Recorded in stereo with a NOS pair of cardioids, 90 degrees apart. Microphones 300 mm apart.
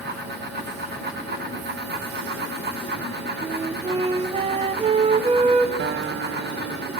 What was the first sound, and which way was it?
A fan, 35° right.